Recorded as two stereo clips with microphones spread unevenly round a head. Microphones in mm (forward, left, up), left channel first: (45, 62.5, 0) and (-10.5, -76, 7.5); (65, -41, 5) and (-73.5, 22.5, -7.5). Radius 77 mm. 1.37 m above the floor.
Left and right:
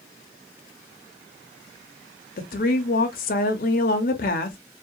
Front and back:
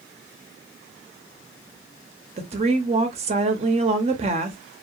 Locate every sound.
2.4 s a woman speaking: 105° left, 0.6 m